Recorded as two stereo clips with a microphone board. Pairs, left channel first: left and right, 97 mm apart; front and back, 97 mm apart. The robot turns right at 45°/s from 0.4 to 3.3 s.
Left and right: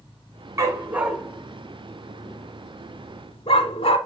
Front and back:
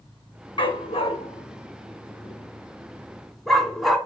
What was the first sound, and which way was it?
A dog barking, 35° right.